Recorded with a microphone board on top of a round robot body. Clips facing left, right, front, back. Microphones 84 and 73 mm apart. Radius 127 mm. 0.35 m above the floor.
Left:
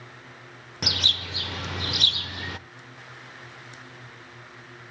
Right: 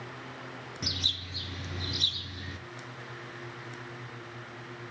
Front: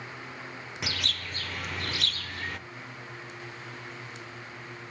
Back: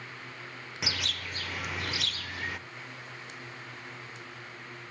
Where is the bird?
95° left, 0.6 m.